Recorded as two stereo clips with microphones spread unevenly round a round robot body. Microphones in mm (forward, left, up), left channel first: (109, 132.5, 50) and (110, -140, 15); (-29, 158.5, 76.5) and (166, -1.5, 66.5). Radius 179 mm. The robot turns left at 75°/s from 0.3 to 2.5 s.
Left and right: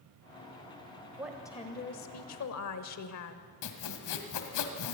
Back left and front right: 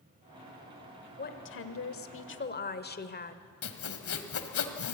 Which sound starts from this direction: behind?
A woman speaking, at 1.2 s.